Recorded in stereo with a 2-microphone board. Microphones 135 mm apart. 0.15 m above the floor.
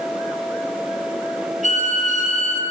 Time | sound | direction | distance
1.6 | a violin | 65° right (ahead or behind) | 4 m